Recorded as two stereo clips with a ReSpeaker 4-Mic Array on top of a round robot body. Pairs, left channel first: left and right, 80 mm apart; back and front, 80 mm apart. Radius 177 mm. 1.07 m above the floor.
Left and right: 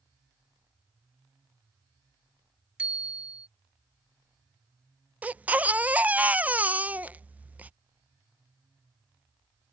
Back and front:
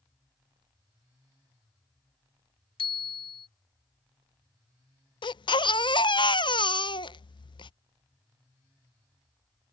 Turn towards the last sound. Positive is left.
turn(degrees=-160)